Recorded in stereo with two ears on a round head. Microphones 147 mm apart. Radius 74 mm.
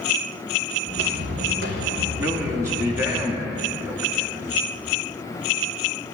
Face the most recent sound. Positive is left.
turn(degrees=-15)  # may be behind; listen again after turning